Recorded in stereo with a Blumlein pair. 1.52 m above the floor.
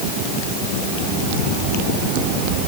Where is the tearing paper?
No tearing paper in this recording.